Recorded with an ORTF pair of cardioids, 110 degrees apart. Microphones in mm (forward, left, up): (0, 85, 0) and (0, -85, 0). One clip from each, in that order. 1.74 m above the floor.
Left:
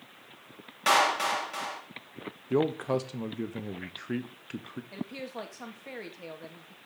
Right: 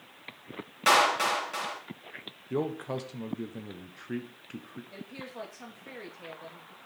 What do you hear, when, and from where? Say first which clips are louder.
0.9 s a clap: right 1 dB; 10° right, 3 m
2.5 s a man speaking: left 5 dB; 25° left, 1.3 m
4.9 s a woman speaking: left 4 dB; 25° left, 2.5 m